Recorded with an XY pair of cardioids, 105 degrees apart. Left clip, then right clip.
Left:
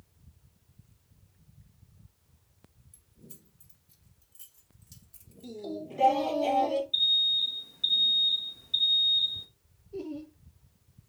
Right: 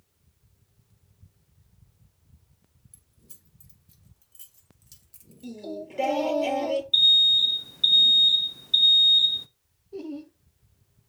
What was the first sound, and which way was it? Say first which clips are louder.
Keys jangling: left 2 dB; 50° right.